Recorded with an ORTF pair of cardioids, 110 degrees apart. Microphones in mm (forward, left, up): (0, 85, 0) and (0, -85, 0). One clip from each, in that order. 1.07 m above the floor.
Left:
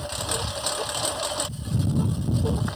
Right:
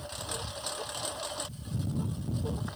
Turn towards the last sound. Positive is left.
turn(degrees=50)